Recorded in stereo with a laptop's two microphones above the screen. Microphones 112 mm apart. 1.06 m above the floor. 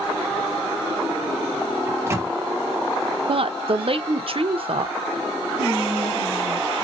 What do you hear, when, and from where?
1.9 s a microwave: 25° right (ahead or behind), 0.5 m
3.3 s a woman speaking: 55° right (ahead or behind), 0.5 m
5.6 s whispering: 85° right, 1.1 m